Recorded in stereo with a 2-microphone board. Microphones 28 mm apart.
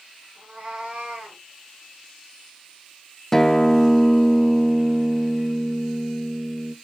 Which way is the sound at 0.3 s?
50° right (ahead or behind).